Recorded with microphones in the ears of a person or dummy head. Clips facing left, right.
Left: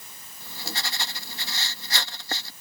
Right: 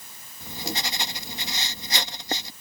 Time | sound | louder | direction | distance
0.4 | writing | right 5 dB | 10° right (ahead or behind) | ?